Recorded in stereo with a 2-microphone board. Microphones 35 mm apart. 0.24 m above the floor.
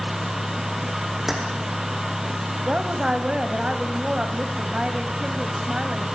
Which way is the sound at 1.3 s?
5° right (ahead or behind).